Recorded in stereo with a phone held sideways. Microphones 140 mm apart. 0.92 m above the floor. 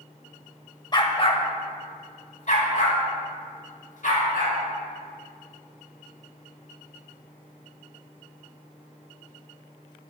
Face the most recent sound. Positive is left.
turn(degrees=70)  # may be behind; listen again after turning